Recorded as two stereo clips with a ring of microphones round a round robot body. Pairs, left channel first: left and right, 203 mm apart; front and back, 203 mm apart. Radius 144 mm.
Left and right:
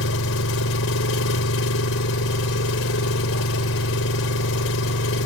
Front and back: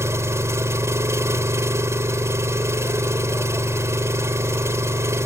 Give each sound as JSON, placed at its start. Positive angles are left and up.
{"t": 0.0, "sound": "an engine running", "azimuth_deg": 105}